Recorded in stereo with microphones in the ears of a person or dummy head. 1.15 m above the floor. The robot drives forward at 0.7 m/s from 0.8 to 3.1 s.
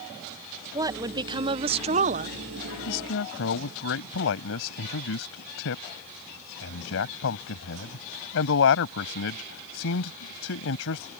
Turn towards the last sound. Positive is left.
turn(degrees=75)  # may be behind; listen again after turning